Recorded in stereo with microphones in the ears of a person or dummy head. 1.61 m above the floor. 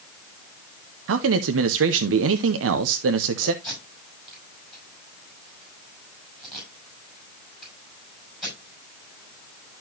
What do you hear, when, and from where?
1.1 s a man speaking: 75° right (ahead or behind), 0.7 m
3.6 s tape being pulled: centre (ahead or behind), 6 m